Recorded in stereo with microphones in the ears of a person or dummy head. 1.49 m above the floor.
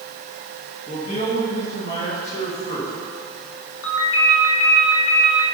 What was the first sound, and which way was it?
A man speaking, 45° left (ahead or behind).